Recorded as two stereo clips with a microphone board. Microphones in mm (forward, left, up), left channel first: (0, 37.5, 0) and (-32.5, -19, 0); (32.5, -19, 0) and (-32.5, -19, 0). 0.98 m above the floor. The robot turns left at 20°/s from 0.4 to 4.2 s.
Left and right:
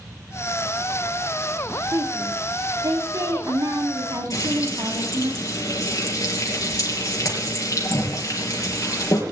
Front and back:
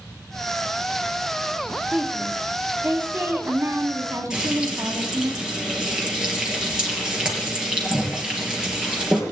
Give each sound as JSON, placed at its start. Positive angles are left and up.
{"t": 1.9, "sound": "a woman speaking", "azimuth_deg": -100, "distance_m": 2.0}
{"t": 4.3, "sound": "frying", "azimuth_deg": 100, "distance_m": 4.5}